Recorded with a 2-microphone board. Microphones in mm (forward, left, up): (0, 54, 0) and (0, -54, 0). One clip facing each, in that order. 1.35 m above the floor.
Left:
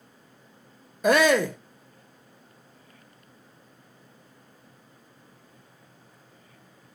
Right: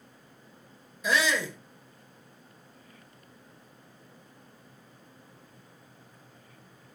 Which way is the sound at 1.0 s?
55° left (ahead or behind).